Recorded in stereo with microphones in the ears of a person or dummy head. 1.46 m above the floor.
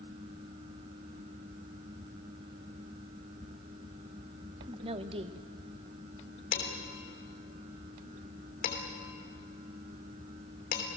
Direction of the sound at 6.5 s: 50° left (ahead or behind).